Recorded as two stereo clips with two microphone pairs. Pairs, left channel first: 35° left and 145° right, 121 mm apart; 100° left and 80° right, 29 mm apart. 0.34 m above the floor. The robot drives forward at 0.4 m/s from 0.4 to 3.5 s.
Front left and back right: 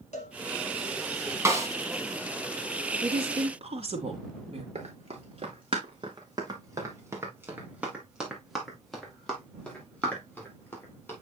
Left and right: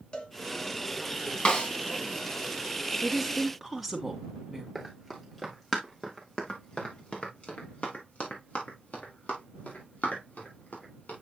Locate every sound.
0.1 s a cowbell: 50° left, 1.7 m
1.4 s a snare drum: 150° left, 1.9 m; by 1.7 s 155° left, 2.0 m
3.0 s a woman speaking: 175° right, 2.5 m
4.8 s running footsteps: 175° right, 3.5 m; by 11.2 s 105° left, 6 m